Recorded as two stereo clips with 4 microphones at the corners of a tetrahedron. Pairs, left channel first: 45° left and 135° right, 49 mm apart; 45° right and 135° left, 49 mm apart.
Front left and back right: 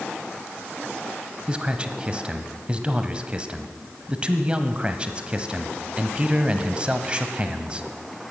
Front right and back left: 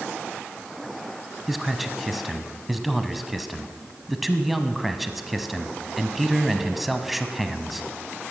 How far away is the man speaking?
About 1.1 m.